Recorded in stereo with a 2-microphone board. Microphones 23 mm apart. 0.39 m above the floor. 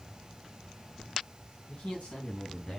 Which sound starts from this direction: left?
A man speaking, at 1.7 s.